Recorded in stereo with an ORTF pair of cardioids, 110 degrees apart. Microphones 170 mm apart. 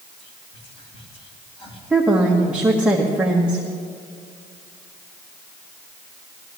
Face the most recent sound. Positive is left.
turn(degrees=-5)